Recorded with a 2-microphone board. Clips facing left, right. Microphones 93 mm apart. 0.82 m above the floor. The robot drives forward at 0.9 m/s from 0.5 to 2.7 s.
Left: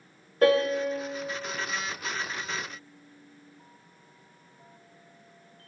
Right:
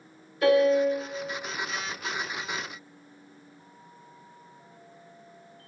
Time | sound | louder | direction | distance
0.4 | a piano | right 2 dB | 50° left (ahead or behind) | 1.3 m